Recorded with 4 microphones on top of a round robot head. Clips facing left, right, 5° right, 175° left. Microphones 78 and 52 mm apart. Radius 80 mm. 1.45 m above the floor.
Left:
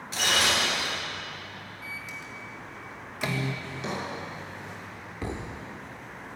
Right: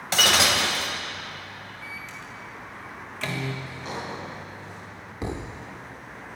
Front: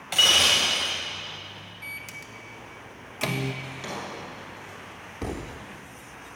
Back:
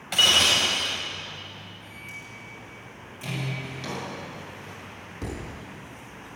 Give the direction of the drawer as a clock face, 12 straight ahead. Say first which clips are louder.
Even, back 1 dB; 9 o'clock.